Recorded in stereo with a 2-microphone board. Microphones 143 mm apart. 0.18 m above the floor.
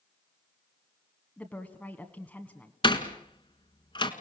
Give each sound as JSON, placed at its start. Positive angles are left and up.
{"t": 1.4, "sound": "a woman speaking", "side_deg": 10, "distance_m": 1.4}
{"t": 2.8, "sound": "a door slam", "side_deg": 40, "distance_m": 1.7}